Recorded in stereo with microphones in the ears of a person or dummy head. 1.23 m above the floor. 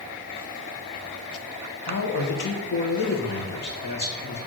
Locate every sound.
1.9 s a man speaking: 50° left (ahead or behind), 1.4 m